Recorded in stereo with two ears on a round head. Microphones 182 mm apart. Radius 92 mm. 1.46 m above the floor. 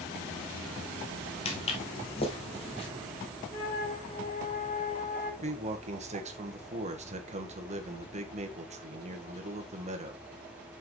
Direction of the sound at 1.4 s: 30° left (ahead or behind).